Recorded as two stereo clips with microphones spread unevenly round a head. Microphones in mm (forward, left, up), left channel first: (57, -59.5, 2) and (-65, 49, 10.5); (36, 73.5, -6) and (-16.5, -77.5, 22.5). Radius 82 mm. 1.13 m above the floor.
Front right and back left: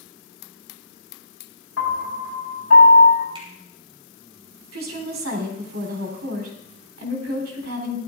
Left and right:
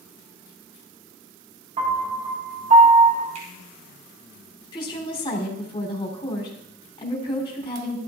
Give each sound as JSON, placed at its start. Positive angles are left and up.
{"t": 1.8, "sound": "a piano", "azimuth_deg": -60, "distance_m": 5.0}
{"t": 3.4, "sound": "a finger snap", "azimuth_deg": -160, "distance_m": 4.5}
{"t": 4.7, "sound": "a woman speaking", "azimuth_deg": 135, "distance_m": 3.5}